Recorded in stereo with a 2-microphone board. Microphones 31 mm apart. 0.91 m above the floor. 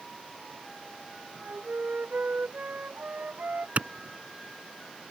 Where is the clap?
55° right (ahead or behind).